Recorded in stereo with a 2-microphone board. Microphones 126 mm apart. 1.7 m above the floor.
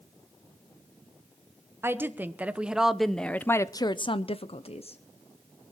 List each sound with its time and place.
1.8 s a woman speaking: 20° right (ahead or behind), 1.3 m; by 5.0 s 55° left (ahead or behind), 0.9 m